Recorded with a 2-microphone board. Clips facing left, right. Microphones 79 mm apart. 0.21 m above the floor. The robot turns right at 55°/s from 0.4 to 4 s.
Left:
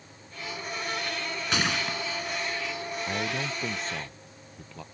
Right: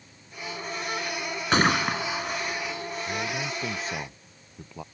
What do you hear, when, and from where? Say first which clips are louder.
1.5 s a gunshot: right 7 dB; 135° right; by 2.8 s 65° right
3.1 s a man speaking: even; 145° left; by 4.8 s 165° right